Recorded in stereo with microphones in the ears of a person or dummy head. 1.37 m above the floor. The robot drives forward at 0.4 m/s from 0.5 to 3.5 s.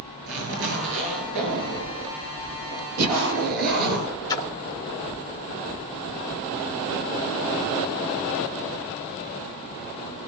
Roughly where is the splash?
Left.